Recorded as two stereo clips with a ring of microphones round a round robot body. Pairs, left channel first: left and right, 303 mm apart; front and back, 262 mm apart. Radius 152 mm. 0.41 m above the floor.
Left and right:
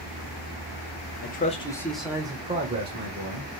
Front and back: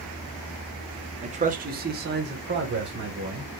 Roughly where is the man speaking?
Behind left.